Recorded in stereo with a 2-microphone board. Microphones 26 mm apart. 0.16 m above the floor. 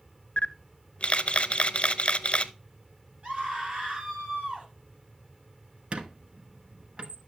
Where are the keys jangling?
I don't hear keys jangling.